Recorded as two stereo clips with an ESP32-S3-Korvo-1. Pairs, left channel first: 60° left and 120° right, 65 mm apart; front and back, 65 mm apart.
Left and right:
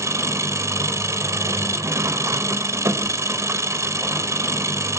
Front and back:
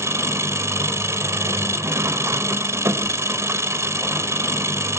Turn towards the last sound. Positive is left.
turn(degrees=-145)